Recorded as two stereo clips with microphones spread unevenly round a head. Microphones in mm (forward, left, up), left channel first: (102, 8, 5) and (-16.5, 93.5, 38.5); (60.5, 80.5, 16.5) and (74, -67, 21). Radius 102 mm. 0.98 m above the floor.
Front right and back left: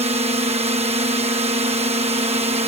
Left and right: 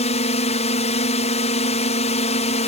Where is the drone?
105° left.